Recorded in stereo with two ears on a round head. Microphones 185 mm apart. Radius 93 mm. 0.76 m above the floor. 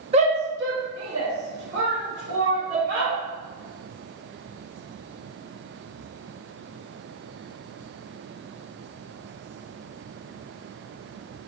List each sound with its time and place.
0.1 s a shout: 30° right (ahead or behind), 0.6 m; by 3.1 s 70° right (ahead or behind), 2.5 m